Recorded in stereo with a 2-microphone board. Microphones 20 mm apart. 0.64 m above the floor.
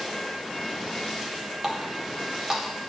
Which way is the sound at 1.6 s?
25° right (ahead or behind).